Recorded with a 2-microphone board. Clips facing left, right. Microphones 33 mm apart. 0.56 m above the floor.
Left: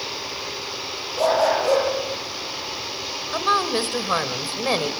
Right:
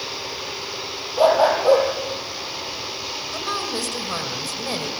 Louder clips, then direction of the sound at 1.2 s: Right 3 dB; 30° right (ahead or behind).